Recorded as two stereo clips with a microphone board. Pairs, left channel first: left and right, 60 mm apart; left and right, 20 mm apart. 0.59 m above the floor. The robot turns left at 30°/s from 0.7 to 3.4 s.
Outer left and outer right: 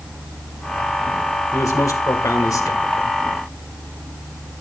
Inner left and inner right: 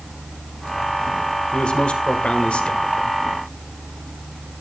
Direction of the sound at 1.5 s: 110° left.